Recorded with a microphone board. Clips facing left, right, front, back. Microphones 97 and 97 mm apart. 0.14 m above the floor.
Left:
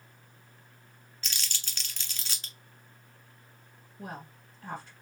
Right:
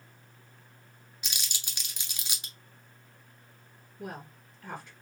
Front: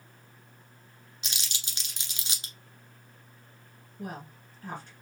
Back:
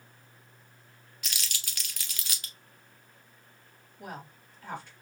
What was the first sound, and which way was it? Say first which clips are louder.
Crumpling: even, back 1 dB; 35° right.